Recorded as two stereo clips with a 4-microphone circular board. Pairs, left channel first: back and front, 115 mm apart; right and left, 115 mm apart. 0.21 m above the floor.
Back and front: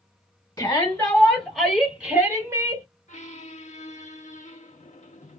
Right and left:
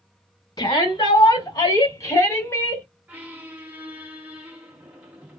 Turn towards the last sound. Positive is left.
turn(degrees=165)